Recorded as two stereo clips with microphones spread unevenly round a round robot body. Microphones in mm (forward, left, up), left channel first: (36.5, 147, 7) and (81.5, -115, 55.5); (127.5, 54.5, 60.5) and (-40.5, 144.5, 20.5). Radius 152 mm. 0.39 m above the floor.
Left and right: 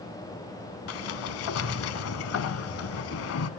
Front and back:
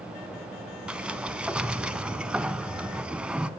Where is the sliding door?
60° left, 0.5 m.